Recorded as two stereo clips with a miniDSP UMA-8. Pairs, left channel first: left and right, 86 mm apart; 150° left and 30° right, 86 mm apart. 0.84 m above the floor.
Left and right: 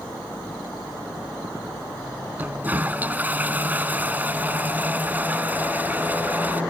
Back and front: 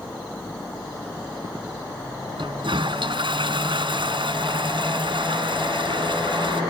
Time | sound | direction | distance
2.4 | a toilet flushing | 20° right | ?